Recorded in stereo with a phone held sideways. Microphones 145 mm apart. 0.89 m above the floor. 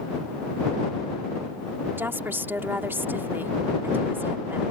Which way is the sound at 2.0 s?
15° right (ahead or behind).